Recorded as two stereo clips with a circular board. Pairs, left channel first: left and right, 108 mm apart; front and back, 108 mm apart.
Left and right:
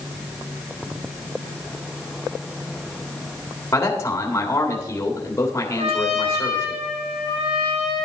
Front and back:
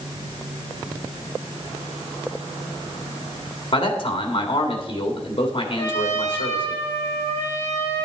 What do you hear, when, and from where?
3.7 s a man speaking: 25° left, 1.9 m
5.8 s a trumpet: 65° right, 4 m